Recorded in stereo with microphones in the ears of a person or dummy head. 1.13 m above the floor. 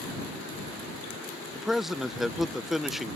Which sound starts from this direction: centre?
A man speaking, at 1.6 s.